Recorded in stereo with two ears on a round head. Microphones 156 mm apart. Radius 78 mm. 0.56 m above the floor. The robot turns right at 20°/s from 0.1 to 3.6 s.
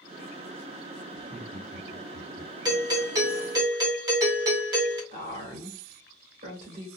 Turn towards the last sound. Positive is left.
turn(degrees=-40)  # may be behind; listen again after turning